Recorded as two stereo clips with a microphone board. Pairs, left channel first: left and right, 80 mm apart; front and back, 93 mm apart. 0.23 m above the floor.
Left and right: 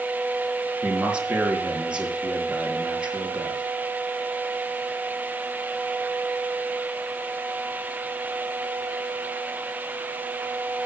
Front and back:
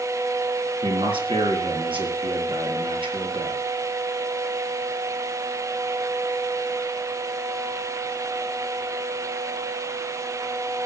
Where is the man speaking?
165° right, 4 m.